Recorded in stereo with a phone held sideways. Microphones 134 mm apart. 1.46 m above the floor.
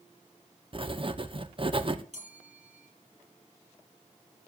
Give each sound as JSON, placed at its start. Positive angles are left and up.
{"t": 0.7, "sound": "writing", "side_deg": -40, "distance_m": 0.9}
{"t": 2.1, "sound": "a bell", "side_deg": -60, "distance_m": 6.0}